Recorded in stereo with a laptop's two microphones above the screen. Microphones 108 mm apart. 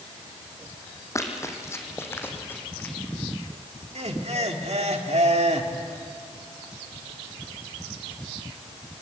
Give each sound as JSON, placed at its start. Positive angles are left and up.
{"t": 1.1, "sound": "running footsteps", "side_deg": 30, "distance_m": 3.0}
{"t": 4.0, "sound": "laughter", "side_deg": -80, "distance_m": 1.8}